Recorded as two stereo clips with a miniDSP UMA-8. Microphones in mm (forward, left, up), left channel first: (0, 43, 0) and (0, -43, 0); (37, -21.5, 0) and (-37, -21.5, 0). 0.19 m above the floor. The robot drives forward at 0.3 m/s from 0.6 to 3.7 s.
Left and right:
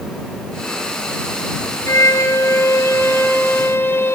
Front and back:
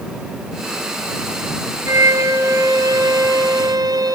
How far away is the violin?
About 1.1 m.